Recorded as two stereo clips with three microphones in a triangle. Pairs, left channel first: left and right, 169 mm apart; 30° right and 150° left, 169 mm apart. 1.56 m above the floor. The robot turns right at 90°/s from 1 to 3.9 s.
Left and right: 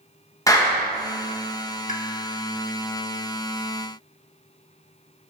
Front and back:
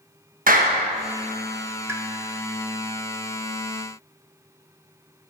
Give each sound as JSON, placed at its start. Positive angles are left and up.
{"t": 0.5, "sound": "a clap", "azimuth_deg": 155, "distance_m": 1.0}
{"t": 1.9, "sound": "a pop", "azimuth_deg": 80, "distance_m": 0.8}